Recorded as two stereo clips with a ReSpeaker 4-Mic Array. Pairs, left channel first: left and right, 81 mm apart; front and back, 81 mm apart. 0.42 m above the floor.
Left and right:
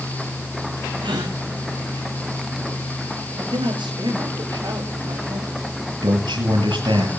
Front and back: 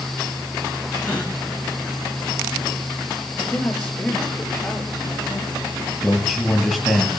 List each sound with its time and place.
1.0 s a gasp: 75° right, 4.5 m
3.4 s a man speaking: 75° right, 8.5 m
6.0 s a man speaking: 90° right, 7 m